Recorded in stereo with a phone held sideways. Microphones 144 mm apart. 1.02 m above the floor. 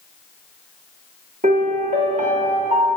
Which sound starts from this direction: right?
A piano, at 1.4 s.